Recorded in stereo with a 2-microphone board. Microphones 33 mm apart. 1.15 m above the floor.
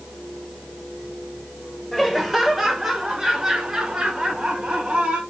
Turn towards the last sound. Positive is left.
turn(degrees=-30)  # may be behind; listen again after turning